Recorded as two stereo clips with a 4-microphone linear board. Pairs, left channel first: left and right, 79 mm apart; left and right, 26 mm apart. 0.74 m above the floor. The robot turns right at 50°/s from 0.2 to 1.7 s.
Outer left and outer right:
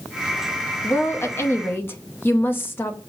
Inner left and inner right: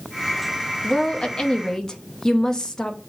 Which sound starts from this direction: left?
A woman speaking, at 0.8 s.